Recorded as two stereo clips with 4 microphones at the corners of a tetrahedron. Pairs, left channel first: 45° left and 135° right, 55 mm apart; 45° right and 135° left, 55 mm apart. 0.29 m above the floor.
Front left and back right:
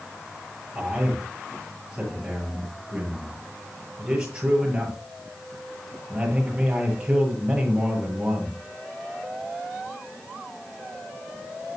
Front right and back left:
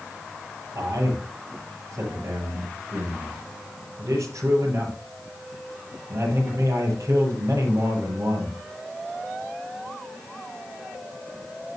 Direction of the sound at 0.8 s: 155° left.